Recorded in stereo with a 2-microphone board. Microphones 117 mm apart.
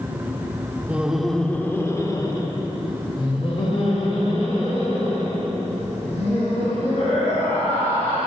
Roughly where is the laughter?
Centre.